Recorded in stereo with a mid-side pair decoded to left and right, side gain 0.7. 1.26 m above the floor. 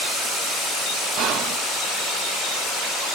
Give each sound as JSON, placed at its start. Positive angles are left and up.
{"t": 1.2, "sound": "whispering", "azimuth_deg": -55, "distance_m": 1.7}